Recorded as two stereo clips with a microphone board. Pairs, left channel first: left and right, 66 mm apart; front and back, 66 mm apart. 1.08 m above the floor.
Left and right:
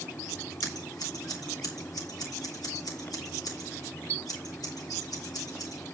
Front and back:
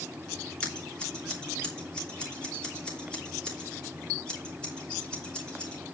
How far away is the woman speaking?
I don't hear a woman speaking.